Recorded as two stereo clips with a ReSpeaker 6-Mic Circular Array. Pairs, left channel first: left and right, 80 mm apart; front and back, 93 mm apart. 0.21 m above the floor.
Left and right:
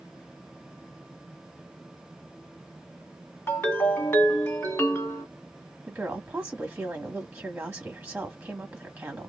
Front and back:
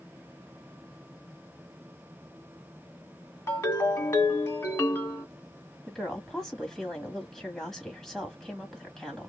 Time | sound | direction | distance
3.5 | a ringtone | 50° left | 1.3 m
5.9 | a woman speaking | 75° right | 1.2 m